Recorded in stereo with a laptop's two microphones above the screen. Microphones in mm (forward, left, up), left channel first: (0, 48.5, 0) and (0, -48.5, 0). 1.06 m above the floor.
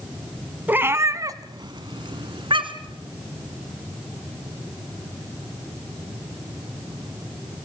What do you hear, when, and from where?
0.7 s a cat meowing: 20° right (ahead or behind), 1.2 m; by 3.0 s 60° right (ahead or behind), 2 m